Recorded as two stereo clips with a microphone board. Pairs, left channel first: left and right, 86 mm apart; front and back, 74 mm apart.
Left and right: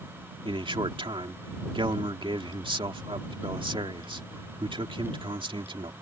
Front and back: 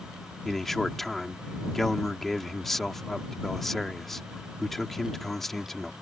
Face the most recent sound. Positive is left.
turn(degrees=-85)